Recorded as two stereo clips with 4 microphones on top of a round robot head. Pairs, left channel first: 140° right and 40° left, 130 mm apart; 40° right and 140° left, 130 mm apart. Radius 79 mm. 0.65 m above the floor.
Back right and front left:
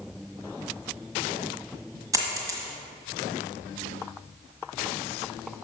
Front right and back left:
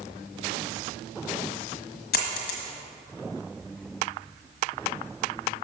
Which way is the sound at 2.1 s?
30° right.